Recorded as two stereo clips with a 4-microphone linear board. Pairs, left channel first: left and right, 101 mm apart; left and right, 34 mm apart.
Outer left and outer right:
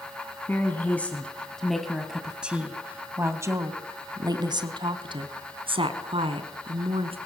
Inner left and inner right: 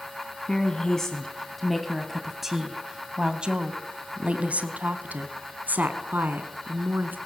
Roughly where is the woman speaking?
Left.